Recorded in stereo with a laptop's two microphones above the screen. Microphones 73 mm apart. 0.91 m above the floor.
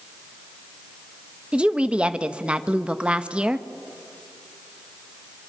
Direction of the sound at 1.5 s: 15° right (ahead or behind).